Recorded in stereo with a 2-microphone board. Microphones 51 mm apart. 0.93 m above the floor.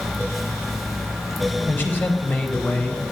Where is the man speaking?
40° left (ahead or behind), 4 m; by 3.0 s 25° left (ahead or behind), 4 m.